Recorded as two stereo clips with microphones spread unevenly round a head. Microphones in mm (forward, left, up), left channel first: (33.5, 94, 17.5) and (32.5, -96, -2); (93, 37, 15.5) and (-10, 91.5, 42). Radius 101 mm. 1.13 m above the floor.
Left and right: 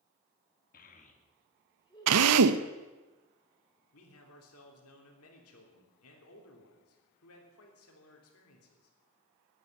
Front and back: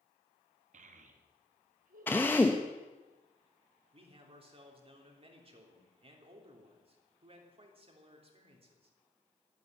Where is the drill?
110° right, 0.6 m.